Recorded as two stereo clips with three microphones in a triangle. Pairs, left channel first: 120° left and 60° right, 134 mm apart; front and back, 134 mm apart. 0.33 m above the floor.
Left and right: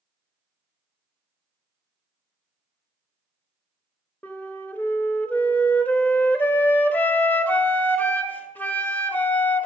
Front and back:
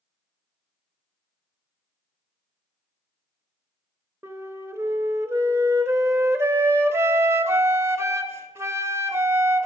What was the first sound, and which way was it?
A flute, 170° left.